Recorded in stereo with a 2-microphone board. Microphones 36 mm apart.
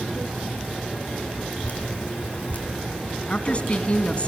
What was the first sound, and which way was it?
Dripping, 50° left (ahead or behind).